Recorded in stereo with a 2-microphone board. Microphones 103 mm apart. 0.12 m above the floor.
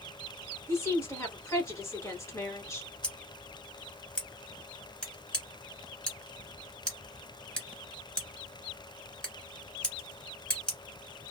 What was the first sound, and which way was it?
A woman speaking, 30° left (ahead or behind).